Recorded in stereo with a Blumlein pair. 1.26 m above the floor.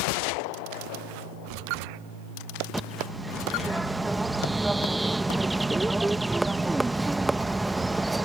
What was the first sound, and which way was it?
A bird, 10° right.